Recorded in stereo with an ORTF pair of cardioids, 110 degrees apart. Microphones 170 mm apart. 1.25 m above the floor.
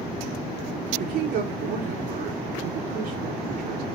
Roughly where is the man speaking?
Ahead right.